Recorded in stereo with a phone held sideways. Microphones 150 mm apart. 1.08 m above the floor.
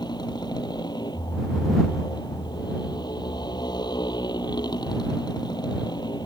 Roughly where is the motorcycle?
Left.